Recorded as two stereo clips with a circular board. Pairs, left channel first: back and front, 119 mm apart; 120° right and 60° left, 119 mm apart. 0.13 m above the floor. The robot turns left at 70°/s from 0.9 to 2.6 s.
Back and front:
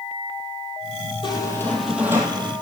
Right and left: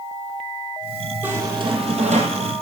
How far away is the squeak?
About 2.5 m.